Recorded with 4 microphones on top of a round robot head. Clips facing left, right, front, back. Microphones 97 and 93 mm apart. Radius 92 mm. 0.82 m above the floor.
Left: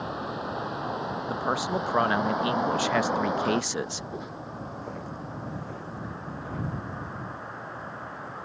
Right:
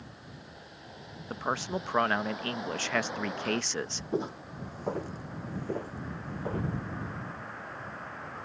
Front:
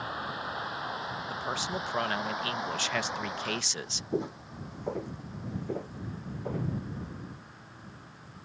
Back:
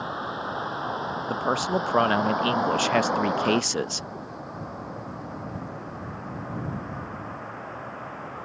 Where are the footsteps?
40° right; by 6.7 s 50° right.